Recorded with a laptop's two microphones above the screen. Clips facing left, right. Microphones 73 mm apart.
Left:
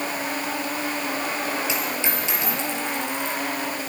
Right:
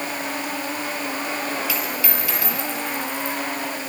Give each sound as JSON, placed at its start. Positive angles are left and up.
{"t": 1.7, "sound": "a dropped coin", "side_deg": 25, "distance_m": 5.5}